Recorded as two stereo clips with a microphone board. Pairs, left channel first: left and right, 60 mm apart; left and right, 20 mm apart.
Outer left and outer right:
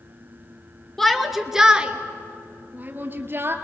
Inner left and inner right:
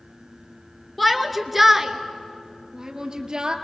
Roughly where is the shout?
Centre.